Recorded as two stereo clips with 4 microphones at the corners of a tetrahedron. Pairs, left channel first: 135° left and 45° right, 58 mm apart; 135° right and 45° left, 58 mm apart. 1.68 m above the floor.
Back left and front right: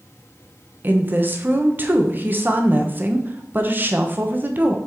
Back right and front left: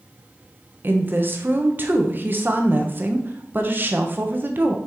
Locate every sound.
0.8 s a woman speaking: straight ahead, 1.0 m